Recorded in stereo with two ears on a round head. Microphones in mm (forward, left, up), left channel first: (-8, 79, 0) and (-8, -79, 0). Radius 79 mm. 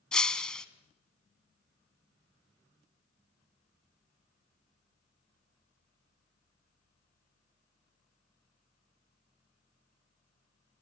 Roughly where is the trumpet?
I don't hear a trumpet.